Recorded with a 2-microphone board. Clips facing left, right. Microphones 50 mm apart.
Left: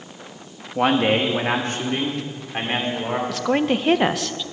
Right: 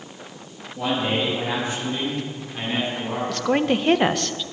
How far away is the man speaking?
About 1.6 m.